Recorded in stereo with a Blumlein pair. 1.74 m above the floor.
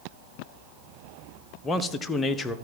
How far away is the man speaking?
About 0.7 m.